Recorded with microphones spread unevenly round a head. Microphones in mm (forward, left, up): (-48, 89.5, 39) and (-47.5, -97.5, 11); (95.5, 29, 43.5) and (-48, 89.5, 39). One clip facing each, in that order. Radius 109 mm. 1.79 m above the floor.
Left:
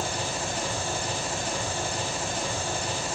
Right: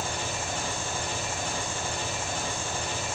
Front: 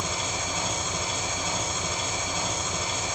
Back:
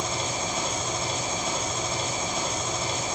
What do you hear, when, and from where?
0.0 s an engine running: 105° left, 8.5 m